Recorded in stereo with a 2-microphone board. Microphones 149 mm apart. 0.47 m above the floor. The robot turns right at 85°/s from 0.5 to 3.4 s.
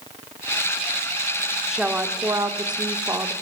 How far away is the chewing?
I don't hear chewing.